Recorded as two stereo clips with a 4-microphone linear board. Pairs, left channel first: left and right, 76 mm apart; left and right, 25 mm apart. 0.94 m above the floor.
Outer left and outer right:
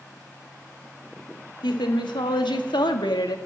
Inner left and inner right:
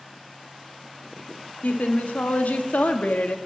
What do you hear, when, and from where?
1.6 s a woman speaking: 80° left, 1.9 m; by 3.4 s 65° left (ahead or behind), 1.2 m